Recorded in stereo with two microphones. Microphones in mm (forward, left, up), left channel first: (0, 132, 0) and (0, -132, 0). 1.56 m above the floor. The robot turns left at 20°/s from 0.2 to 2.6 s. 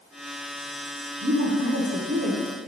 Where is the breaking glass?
No breaking glass in this recording.